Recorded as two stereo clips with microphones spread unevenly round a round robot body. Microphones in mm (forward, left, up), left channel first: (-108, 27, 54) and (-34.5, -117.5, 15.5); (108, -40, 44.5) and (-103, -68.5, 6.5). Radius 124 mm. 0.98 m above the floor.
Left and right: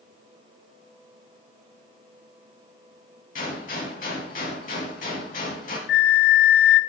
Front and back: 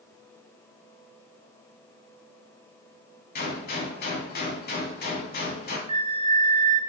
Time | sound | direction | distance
3.4 | a gunshot | 60° left | 2 m
5.9 | a flute | 110° left | 0.7 m